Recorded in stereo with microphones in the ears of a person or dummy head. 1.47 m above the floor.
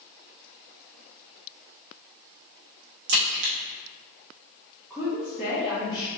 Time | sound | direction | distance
3.1 | a crack | 65° right (ahead or behind) | 1.2 m
4.9 | a woman speaking | 5° left (ahead or behind) | 0.9 m